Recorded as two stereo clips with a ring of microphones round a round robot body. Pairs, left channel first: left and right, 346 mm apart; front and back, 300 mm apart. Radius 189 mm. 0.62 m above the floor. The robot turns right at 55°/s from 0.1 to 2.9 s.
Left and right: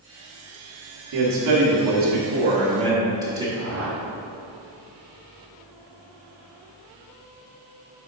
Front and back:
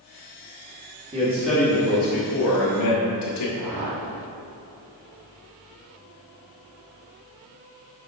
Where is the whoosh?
145° right, 2 m.